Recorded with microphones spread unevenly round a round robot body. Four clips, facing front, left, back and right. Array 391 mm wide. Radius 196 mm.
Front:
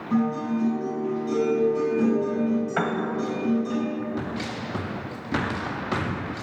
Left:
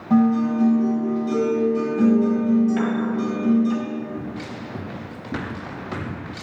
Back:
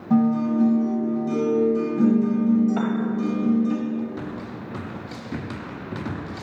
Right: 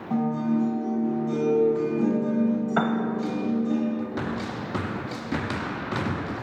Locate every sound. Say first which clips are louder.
0.1 s a guitar: left 7 dB, back 5 dB; 150° left, 5 m
2.8 s a piano: left 1 dB, back 1 dB; 60° right, 1.3 m